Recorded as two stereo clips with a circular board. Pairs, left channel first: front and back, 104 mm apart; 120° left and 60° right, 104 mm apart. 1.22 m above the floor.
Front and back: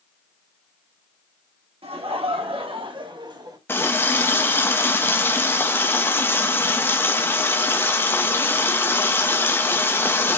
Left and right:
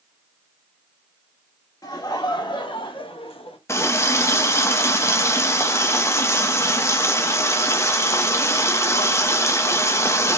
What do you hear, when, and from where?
1.8 s laughter: 170° left, 1.6 m; by 3.6 s 130° left, 1.2 m
3.7 s a running tap: 65° left, 0.6 m